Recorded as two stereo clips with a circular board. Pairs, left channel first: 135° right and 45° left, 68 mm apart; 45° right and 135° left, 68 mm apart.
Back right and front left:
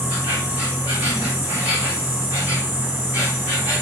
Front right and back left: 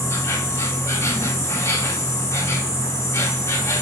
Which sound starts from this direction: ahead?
An insect, at 0.0 s.